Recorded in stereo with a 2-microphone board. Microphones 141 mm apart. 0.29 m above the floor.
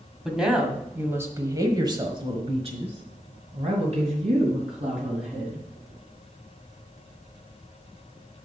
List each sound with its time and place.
0.2 s a woman speaking: 5° right (ahead or behind), 1.5 m; by 5.7 s 55° right (ahead or behind), 2.5 m